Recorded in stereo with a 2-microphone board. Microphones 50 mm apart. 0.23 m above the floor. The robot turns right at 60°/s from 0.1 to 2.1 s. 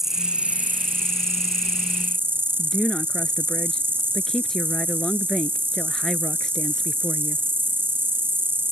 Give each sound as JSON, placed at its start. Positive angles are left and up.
{"t": 0.0, "sound": "an insect", "azimuth_deg": -170}
{"t": 2.6, "sound": "a woman speaking", "side_deg": 10}